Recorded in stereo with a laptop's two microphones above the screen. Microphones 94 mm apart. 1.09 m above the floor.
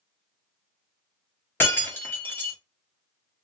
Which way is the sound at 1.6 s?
20° left (ahead or behind).